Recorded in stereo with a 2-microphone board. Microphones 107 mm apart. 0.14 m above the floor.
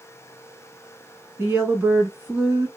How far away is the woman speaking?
About 1.1 m.